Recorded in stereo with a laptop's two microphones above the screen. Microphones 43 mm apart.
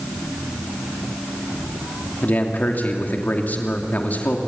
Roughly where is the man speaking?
Left.